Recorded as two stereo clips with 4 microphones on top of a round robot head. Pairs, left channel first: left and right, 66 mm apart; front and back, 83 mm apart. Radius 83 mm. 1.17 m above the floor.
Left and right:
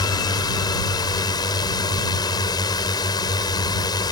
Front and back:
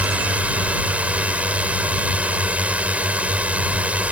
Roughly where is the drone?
Left.